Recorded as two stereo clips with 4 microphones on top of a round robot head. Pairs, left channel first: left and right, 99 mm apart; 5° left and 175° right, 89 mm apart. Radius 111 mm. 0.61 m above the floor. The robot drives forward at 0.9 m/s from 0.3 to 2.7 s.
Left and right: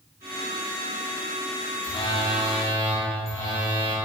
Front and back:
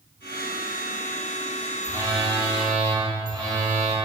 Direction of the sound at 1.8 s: 125° left.